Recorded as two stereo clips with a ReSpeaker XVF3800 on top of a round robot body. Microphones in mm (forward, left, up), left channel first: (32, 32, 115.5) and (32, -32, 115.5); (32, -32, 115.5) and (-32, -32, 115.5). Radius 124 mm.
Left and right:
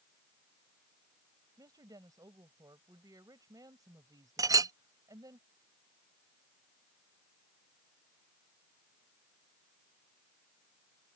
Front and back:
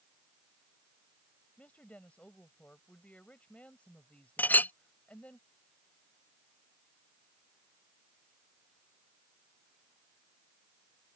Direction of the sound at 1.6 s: 70° right.